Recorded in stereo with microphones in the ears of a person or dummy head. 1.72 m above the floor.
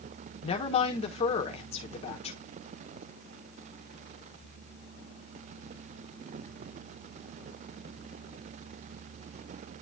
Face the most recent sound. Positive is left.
turn(degrees=30)  # may be behind; listen again after turning